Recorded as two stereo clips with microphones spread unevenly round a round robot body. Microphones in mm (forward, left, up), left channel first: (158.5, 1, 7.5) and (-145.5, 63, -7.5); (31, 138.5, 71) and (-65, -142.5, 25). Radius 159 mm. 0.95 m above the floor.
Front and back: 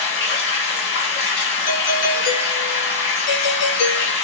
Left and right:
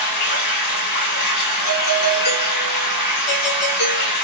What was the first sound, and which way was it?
Running water, 40° left.